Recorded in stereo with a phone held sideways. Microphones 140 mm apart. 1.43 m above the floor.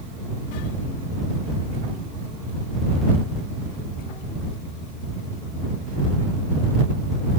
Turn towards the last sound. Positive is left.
No sound to turn to.